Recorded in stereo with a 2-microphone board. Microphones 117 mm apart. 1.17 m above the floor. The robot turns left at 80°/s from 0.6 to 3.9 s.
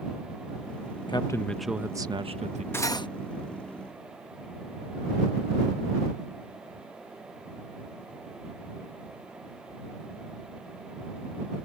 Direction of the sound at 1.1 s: 40° left.